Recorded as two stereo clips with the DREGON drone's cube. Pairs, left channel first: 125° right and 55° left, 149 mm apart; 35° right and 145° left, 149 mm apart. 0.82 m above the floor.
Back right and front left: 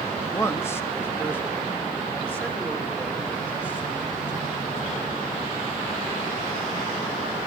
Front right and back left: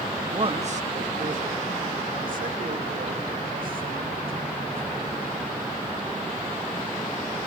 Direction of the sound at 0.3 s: 175° left.